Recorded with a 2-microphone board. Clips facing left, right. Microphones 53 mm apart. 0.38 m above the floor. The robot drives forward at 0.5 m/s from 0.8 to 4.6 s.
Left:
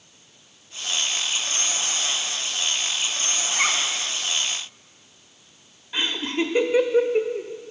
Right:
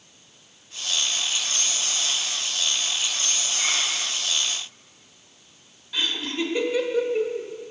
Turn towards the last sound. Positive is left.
turn(degrees=30)  # may be behind; listen again after turning